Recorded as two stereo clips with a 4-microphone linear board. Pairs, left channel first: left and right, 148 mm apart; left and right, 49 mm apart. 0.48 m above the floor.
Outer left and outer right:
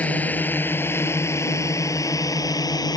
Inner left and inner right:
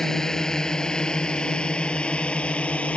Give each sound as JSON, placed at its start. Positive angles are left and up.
{"t": 0.0, "sound": "a drone", "side_deg": 10}